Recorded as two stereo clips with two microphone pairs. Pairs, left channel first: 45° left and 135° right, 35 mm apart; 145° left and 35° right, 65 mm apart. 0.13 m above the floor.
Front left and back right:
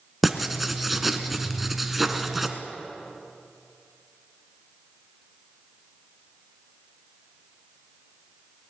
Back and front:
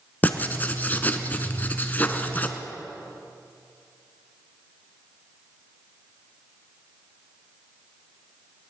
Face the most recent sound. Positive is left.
turn(degrees=145)